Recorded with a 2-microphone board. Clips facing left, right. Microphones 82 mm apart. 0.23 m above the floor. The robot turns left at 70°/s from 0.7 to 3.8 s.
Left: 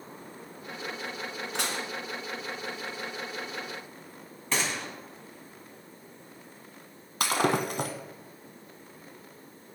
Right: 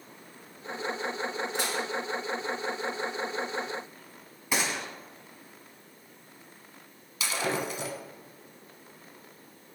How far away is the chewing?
No chewing in this recording.